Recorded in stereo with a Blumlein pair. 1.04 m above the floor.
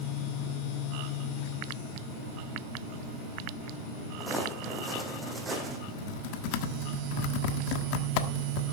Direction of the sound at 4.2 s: Straight ahead.